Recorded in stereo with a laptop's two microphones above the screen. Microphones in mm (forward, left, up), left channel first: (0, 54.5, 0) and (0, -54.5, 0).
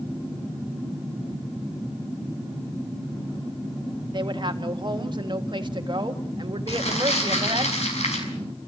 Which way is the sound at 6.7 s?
80° left.